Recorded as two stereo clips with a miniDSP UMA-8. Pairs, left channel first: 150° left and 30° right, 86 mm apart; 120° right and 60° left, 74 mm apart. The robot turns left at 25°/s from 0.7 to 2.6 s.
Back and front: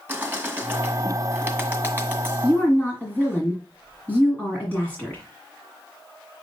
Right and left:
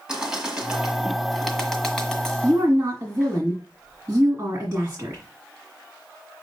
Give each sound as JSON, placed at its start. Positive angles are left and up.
{"t": 0.1, "sound": "a bird", "azimuth_deg": -10, "distance_m": 1.6}
{"t": 2.4, "sound": "a woman speaking", "azimuth_deg": 95, "distance_m": 1.8}